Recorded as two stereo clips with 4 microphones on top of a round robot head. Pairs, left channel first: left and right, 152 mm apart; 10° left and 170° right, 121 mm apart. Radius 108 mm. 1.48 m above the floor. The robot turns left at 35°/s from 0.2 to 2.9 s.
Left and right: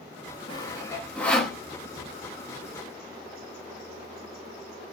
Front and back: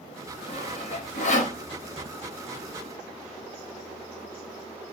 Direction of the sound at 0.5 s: 35° left.